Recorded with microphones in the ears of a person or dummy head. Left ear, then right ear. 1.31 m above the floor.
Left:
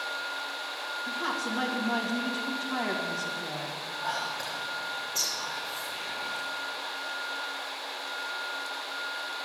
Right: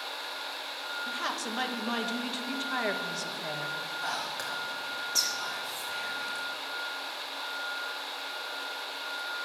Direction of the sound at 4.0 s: 75° right (ahead or behind).